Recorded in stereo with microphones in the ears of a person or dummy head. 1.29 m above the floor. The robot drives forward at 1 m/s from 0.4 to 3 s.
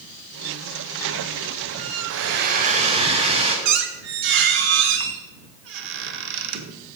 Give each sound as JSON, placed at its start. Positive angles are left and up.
{"t": 2.1, "sound": "a hair dryer", "side_deg": -60, "distance_m": 0.5}
{"t": 3.6, "sound": "a squeak", "side_deg": -60, "distance_m": 0.6}